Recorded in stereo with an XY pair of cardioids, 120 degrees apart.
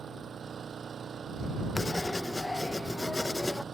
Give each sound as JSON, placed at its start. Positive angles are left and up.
{"t": 0.0, "sound": "an engine running", "azimuth_deg": -35}
{"t": 1.8, "sound": "writing", "azimuth_deg": 15}